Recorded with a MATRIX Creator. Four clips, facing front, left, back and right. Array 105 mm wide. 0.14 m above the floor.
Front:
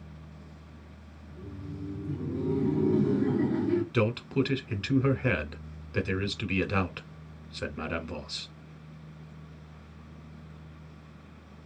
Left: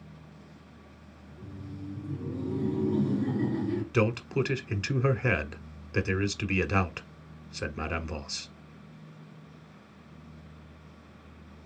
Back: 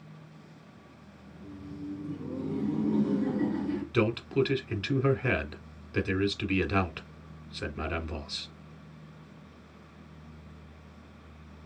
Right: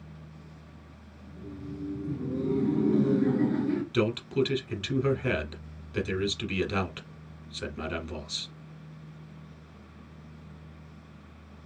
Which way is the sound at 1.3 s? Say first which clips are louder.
Right 4 dB, front 1 dB; 65° right.